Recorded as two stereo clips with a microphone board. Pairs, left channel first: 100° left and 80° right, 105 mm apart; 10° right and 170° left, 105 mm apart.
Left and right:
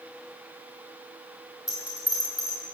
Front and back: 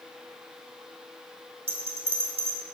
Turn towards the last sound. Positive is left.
turn(degrees=155)